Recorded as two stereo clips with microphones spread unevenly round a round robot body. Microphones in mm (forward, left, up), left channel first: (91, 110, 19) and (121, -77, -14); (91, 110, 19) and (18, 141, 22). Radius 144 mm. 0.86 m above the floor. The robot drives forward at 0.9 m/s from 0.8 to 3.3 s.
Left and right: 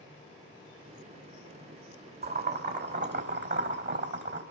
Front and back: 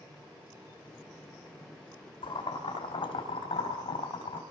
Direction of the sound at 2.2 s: 45° right.